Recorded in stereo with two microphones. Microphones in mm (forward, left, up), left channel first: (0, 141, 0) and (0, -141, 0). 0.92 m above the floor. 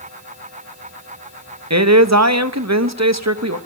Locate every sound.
1.7 s a man speaking: 60° right (ahead or behind), 1.0 m